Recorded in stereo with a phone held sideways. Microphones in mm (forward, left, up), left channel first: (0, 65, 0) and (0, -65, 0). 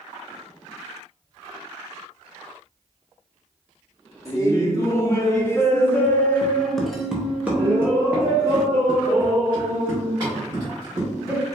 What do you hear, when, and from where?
4.2 s laughter: 25° left (ahead or behind), 1.5 m; by 11.5 s 25° right (ahead or behind), 2.5 m